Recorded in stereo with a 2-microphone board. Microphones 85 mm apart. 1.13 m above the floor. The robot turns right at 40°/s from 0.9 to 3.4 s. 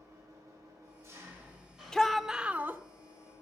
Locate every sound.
0.0 s an engine running: 40° right, 4 m; by 3.4 s 60° left, 4 m
1.9 s a shout: 170° left, 0.7 m; by 2.8 s 150° right, 0.7 m